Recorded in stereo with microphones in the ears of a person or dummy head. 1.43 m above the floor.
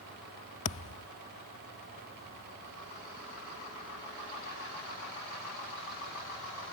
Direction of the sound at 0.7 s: 40° left (ahead or behind).